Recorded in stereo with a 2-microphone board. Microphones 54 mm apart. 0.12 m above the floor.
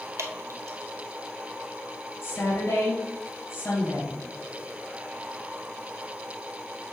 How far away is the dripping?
About 1.2 m.